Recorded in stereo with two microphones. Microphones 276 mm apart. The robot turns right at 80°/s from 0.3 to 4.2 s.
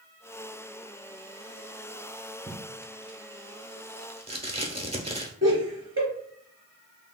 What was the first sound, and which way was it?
Tape being pulled, 10° right (ahead or behind).